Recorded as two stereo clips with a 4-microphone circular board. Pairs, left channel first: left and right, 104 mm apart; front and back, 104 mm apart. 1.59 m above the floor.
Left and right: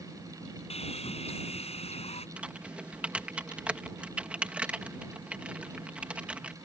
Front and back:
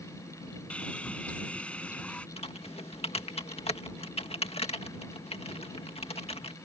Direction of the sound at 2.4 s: 10° right.